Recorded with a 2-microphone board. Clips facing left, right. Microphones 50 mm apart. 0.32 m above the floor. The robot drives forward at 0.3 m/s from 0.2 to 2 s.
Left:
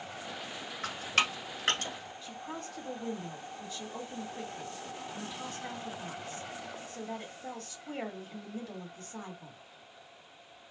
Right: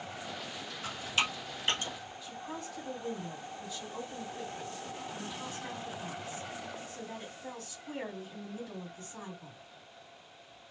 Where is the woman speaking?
50° left (ahead or behind), 1.8 m.